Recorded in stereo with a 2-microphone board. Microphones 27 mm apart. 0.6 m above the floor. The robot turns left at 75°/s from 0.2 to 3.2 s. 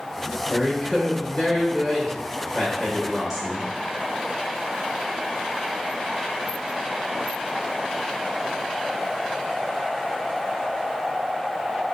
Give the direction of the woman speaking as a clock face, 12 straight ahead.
6 o'clock.